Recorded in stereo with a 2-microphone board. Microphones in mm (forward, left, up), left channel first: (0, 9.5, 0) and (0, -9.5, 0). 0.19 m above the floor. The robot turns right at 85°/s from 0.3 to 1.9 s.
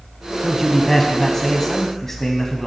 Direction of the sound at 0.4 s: Centre (ahead or behind).